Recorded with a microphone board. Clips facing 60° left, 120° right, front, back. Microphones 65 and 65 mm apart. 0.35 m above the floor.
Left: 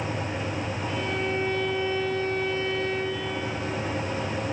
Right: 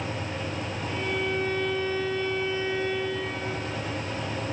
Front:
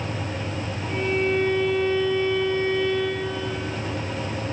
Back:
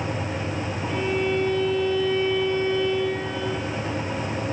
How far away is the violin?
About 7.5 m.